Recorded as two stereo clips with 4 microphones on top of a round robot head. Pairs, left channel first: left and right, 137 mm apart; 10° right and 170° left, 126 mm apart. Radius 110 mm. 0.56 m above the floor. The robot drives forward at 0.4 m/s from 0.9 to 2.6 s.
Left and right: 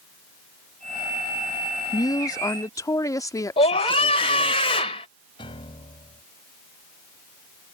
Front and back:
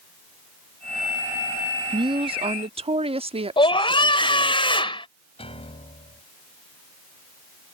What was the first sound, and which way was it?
A woman speaking, 140° left.